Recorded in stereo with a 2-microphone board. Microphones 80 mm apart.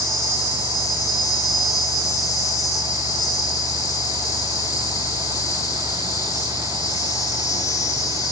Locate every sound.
0.0 s an insect: 45° left (ahead or behind), 1.9 m